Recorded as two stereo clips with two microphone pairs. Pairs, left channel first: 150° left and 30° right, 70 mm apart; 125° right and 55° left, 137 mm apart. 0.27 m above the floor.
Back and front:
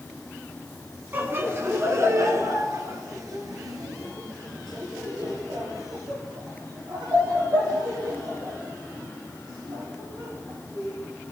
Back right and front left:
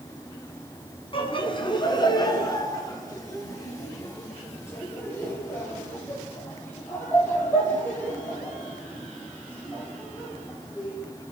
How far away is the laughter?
About 3 m.